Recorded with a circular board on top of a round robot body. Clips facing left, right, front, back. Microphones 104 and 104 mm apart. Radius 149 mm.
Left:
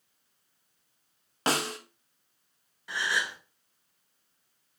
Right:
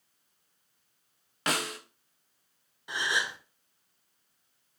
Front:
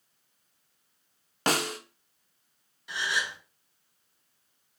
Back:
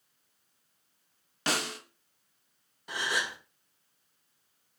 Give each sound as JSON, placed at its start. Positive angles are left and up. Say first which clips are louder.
{"t": 1.5, "sound": "a snare drum", "louder": "left 3 dB, front 5 dB", "azimuth_deg": 35, "distance_m": 0.8}
{"t": 2.9, "sound": "a gasp", "louder": "even, front 1 dB", "azimuth_deg": -155, "distance_m": 1.0}